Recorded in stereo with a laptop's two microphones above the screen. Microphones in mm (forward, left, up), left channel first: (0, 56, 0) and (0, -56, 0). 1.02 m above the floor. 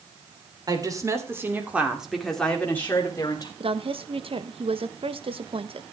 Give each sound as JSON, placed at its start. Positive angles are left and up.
{"t": 0.7, "sound": "a woman speaking", "side_deg": -35, "distance_m": 3.5}
{"t": 3.6, "sound": "a woman speaking", "side_deg": -60, "distance_m": 1.1}